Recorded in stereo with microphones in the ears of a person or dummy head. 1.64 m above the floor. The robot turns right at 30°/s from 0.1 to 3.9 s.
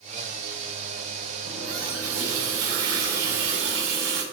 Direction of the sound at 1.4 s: 145° right.